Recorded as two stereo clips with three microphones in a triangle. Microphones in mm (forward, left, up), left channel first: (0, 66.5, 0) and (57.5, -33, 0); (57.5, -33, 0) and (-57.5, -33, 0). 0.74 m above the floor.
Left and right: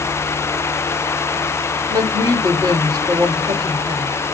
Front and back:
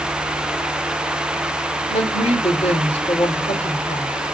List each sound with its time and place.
1.9 s a woman speaking: 15° right, 3 m